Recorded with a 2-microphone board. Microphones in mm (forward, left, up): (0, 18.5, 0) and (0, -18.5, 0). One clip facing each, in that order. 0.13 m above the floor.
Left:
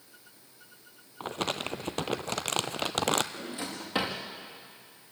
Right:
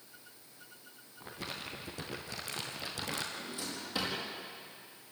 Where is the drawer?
40° left (ahead or behind), 4.5 m.